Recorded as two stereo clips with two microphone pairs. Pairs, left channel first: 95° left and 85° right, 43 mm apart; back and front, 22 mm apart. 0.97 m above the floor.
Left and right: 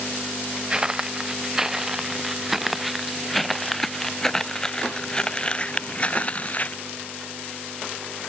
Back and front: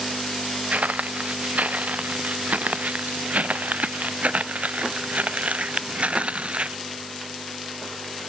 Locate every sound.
0.7 s footsteps: 15° right; by 6.8 s 40° left